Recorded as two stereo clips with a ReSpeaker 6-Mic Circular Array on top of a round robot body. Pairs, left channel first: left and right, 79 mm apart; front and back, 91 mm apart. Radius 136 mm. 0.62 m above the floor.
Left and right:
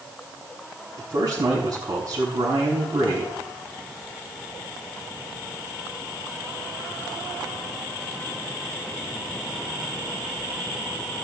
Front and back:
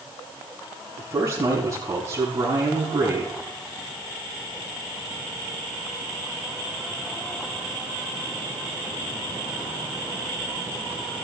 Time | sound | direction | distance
1.0 | a man speaking | 120° right | 6.5 m